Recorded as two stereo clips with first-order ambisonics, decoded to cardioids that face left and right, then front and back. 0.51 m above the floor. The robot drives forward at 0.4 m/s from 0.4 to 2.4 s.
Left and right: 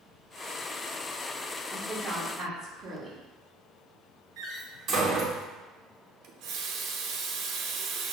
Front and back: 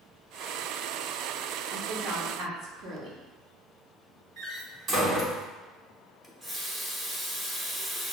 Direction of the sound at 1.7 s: 155° right.